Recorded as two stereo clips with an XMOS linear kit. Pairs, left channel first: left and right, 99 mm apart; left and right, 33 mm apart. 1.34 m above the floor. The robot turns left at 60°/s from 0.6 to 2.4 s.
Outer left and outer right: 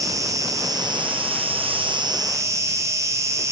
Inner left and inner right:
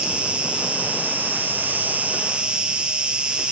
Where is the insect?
40° right, 0.9 m; by 3.5 s 145° right, 0.9 m.